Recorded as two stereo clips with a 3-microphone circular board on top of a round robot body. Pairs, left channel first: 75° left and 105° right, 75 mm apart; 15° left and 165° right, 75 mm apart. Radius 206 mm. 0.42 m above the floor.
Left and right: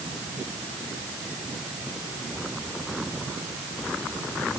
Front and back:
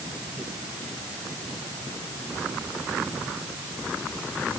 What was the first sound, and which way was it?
Only background noise.